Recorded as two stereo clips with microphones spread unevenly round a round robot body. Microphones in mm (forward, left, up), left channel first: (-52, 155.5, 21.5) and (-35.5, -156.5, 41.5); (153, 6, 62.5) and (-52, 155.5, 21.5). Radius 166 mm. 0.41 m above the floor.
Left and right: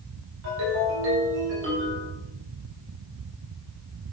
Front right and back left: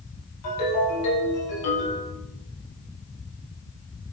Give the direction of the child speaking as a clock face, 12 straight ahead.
No child speaking in this recording.